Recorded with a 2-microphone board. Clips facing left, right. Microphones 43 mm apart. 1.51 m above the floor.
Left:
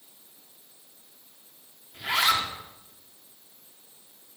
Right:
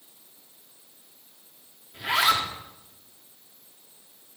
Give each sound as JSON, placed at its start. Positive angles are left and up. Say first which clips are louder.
{"t": 1.9, "sound": "a zipper", "louder": "right 2 dB", "side_deg": -5, "distance_m": 1.5}